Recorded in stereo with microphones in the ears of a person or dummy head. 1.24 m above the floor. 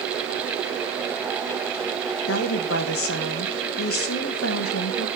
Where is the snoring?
I don't hear snoring.